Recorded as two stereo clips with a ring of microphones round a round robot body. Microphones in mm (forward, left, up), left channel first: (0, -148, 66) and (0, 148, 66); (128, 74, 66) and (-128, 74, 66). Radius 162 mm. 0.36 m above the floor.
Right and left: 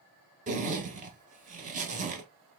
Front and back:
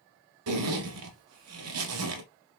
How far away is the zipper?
About 1.3 m.